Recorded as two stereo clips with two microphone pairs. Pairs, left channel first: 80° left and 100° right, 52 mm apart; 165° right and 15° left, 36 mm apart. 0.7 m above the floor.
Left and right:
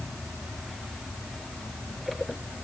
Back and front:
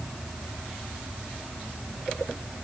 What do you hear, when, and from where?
Only background noise.